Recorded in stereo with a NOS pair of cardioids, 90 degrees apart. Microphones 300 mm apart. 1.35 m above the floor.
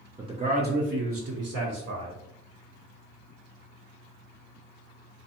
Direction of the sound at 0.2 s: 10° right.